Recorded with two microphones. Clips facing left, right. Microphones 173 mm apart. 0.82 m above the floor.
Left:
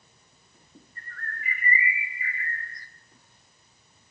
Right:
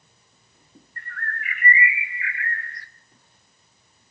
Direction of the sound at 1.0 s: 75° right (ahead or behind).